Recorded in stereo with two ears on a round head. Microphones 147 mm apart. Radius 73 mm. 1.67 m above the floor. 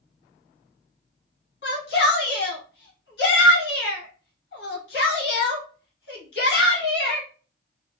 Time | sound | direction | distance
1.6 | a shout | 65° left (ahead or behind) | 1.8 m